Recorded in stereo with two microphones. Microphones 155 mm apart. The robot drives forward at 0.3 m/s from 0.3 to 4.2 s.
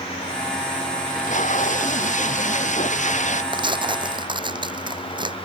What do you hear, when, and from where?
1.1 s tape being pulled: 55° left (ahead or behind); by 3.4 s 50° left (ahead or behind)
3.5 s tearing paper: 30° right (ahead or behind)